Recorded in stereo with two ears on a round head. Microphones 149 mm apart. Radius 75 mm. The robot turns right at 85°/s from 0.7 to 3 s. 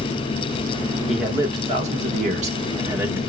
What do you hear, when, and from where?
1.1 s a man speaking: 175° left, 1.2 m; by 3.2 s 20° right, 1.2 m